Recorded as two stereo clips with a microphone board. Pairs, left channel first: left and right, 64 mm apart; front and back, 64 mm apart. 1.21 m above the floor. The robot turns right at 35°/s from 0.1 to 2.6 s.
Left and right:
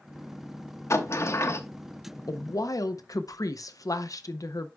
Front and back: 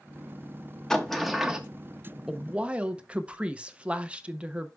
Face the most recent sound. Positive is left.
turn(degrees=110)